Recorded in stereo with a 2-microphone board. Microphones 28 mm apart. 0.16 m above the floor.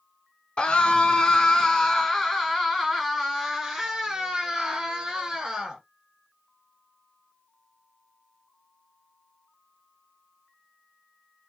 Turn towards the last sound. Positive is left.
turn(degrees=-15)  # may be behind; listen again after turning